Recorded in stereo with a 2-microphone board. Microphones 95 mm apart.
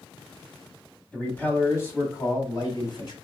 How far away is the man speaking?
About 1.3 m.